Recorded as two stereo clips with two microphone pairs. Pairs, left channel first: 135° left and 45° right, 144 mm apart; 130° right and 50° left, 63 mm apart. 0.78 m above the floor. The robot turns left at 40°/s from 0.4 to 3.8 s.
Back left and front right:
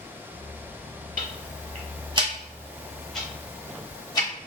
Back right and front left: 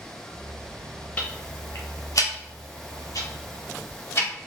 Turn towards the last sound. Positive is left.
turn(degrees=-165)